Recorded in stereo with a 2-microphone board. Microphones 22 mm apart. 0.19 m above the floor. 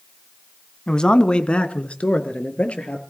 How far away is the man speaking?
About 1.1 m.